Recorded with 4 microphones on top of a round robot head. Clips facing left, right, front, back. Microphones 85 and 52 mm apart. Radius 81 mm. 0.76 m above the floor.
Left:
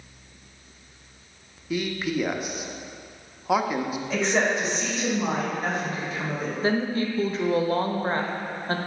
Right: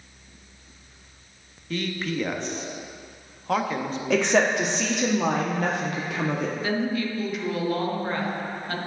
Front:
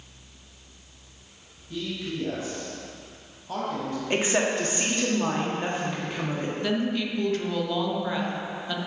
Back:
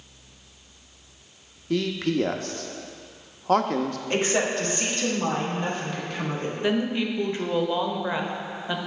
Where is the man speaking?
170° left, 0.8 m.